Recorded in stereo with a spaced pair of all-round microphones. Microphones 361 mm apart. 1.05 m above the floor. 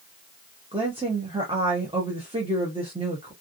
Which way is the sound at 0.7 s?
15° right (ahead or behind).